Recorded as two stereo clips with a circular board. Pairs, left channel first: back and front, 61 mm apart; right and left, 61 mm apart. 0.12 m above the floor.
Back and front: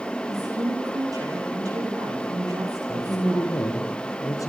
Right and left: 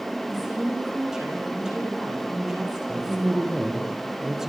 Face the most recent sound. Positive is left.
turn(degrees=175)